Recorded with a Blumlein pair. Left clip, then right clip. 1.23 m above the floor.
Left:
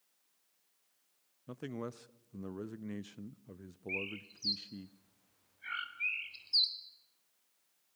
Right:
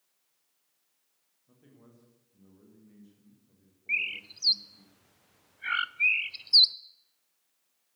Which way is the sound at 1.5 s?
40° left.